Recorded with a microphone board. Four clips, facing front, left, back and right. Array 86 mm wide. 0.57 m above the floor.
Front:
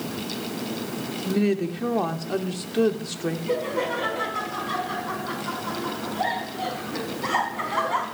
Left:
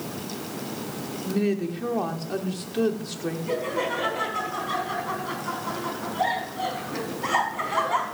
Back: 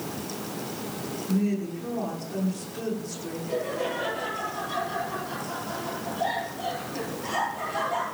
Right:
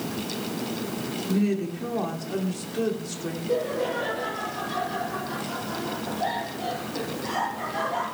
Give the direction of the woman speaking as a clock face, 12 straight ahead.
12 o'clock.